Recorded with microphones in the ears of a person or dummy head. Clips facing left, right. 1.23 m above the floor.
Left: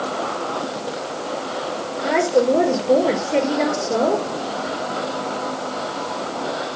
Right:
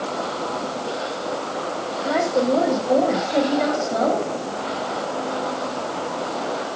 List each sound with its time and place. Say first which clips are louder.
2.0 s a woman speaking: left 3 dB; 90° left, 4 m